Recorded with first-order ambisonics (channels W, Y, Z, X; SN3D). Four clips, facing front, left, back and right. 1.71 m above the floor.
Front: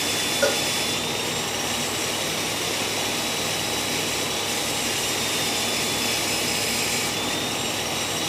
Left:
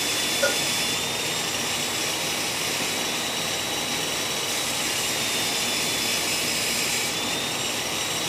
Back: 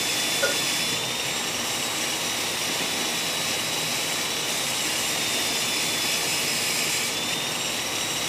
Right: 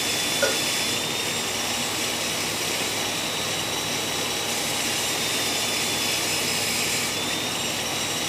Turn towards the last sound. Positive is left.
turn(degrees=-45)